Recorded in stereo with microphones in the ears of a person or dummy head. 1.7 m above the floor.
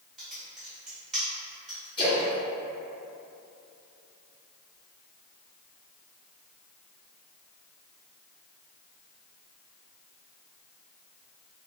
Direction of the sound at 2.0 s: 25° left (ahead or behind).